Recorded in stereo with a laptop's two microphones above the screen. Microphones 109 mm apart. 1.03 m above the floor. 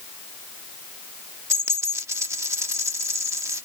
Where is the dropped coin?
25° right (ahead or behind).